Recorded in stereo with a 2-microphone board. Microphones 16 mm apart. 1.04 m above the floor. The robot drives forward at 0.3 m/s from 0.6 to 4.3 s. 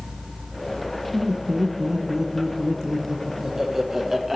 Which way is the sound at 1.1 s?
40° right (ahead or behind).